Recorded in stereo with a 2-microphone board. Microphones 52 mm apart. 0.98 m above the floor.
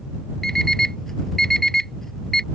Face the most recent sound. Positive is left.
turn(degrees=5)  # may be behind; listen again after turning